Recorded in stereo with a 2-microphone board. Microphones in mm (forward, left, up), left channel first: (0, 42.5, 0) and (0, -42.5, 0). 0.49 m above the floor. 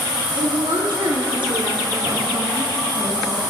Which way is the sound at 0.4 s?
80° right.